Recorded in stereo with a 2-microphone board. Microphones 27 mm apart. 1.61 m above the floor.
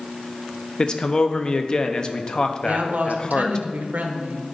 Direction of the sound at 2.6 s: 80° right.